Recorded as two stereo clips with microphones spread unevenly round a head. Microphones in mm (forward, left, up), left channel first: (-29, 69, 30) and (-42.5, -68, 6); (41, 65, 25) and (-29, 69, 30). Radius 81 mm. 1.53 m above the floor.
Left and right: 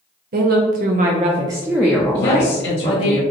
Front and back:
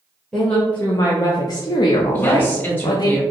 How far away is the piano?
No piano in this recording.